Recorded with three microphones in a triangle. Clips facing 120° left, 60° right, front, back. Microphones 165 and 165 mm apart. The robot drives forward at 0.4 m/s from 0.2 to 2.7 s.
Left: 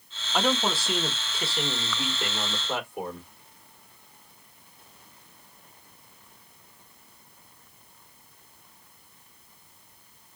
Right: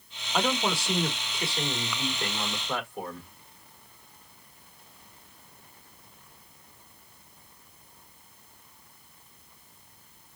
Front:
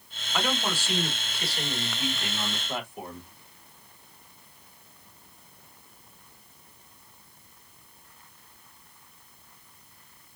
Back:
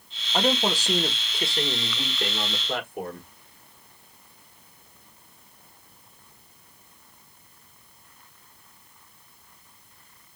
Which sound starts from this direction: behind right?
A man speaking, at 0.3 s.